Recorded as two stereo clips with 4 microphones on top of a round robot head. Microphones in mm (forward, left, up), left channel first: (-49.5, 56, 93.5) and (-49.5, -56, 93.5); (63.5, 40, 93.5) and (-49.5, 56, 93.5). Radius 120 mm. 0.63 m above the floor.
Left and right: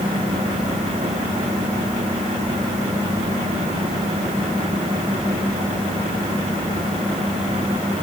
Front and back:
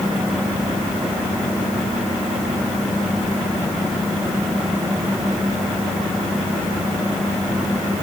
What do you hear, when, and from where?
Only background noise.